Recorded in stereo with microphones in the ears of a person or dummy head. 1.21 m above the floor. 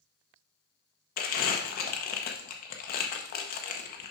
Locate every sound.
1.2 s crumpling: 45° left (ahead or behind), 0.8 m